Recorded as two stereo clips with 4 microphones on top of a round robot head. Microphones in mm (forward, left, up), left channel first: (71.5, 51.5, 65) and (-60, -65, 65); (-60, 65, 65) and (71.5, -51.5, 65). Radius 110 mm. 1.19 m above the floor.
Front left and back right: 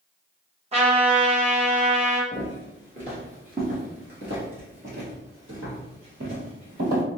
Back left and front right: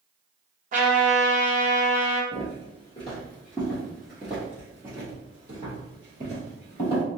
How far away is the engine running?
I don't hear an engine running.